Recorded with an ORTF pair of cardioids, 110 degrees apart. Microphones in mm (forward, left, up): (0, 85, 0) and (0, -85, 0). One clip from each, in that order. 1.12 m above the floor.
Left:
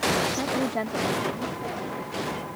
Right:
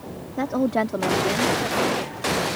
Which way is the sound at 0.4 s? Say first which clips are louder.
Right 4 dB; 25° right.